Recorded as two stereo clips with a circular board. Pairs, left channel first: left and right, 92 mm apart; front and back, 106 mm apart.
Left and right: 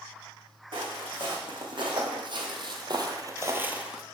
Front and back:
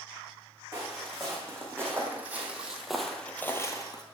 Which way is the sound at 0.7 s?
120° right.